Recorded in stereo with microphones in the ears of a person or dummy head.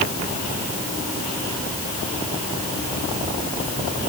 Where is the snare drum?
I don't hear a snare drum.